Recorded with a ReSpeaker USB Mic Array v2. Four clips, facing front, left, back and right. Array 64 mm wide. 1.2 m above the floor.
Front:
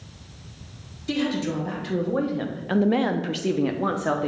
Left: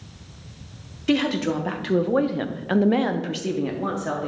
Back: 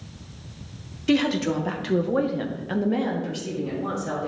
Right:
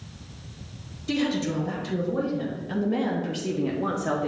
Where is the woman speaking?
125° left, 1.2 m; by 4.3 s 5° right, 1.0 m.